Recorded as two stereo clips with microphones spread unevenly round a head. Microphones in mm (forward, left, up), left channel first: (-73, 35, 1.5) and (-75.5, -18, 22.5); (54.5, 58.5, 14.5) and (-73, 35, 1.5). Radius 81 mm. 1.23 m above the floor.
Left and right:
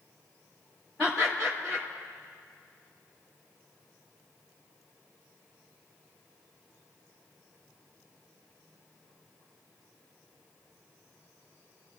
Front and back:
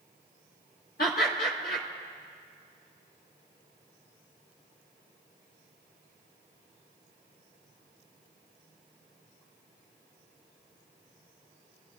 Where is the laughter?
5° right, 3.5 m.